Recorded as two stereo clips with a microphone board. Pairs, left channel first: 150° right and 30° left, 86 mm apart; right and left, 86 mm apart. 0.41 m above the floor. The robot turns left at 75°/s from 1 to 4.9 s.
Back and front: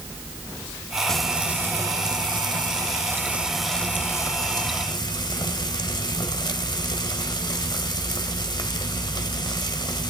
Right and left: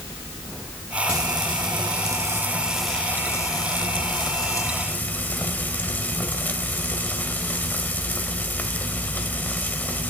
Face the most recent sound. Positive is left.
turn(degrees=-155)